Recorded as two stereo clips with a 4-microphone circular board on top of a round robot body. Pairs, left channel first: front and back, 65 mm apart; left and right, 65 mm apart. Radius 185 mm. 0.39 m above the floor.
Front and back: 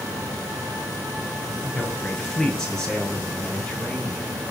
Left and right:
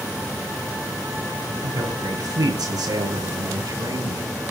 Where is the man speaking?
85° right, 8.5 m.